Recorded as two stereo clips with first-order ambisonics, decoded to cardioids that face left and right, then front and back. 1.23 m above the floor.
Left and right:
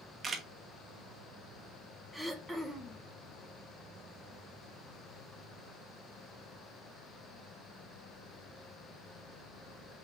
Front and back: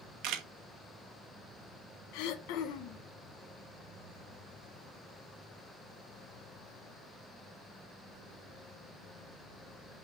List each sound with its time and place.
0.2 s a camera shutter: 155° right, 1.0 m
2.1 s throat clearing: 5° right, 1.0 m